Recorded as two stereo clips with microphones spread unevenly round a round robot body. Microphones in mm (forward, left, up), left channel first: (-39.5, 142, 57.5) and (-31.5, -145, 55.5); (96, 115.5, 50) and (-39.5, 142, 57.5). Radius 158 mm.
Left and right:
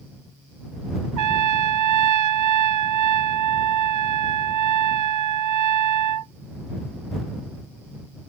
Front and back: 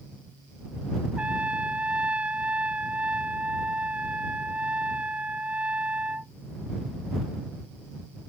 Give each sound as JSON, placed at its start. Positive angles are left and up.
{"t": 1.2, "sound": "a trumpet", "azimuth_deg": -105}